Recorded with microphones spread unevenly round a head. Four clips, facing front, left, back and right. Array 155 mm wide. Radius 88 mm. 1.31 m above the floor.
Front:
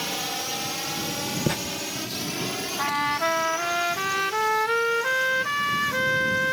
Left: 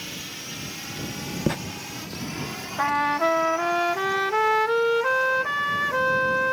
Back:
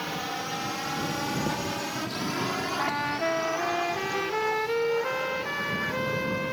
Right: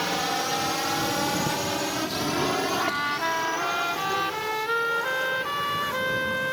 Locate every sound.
0.0 s a drone: 85° right; by 6.5 s 115° right
1.5 s writing: 30° left
2.8 s a trumpet: 105° left